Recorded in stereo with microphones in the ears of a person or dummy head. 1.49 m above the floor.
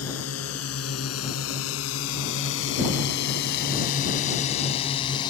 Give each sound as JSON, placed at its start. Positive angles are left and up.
{"t": 0.0, "sound": "a drone", "side_deg": 85}